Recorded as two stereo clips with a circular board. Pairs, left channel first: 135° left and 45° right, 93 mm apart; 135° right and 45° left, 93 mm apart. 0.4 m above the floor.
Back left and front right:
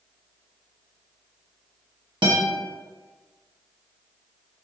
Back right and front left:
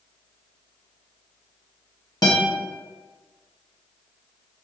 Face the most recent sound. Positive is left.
turn(degrees=-80)